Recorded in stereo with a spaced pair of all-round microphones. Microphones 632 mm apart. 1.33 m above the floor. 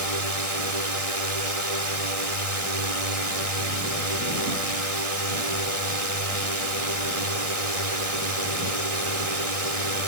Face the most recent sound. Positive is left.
turn(degrees=-60)  # may be behind; listen again after turning